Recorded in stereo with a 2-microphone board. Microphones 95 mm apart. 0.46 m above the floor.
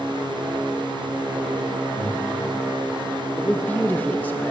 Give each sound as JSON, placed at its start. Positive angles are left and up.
{"t": 2.0, "sound": "breathing", "side_deg": 85, "distance_m": 4.5}
{"t": 3.4, "sound": "a man speaking", "side_deg": 20, "distance_m": 0.7}